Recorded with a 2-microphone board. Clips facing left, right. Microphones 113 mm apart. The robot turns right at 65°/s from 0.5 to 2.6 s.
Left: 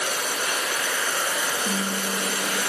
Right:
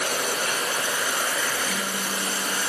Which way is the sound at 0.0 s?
50° right.